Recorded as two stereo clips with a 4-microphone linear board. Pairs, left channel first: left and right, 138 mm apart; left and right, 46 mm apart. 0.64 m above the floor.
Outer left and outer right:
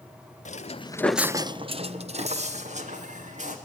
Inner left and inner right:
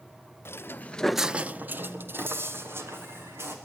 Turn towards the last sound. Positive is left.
turn(degrees=-60)  # may be behind; listen again after turning